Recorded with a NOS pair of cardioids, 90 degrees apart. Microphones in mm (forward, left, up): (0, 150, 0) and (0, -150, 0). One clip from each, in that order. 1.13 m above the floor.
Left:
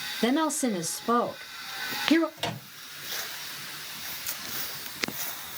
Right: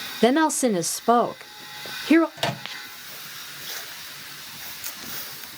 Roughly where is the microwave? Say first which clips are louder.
Right 6 dB; ahead right.